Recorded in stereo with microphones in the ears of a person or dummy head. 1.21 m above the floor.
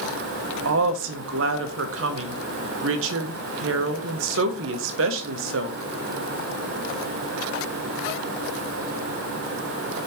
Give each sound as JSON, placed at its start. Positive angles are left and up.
{"t": 0.7, "sound": "a woman speaking", "side_deg": -70, "distance_m": 0.8}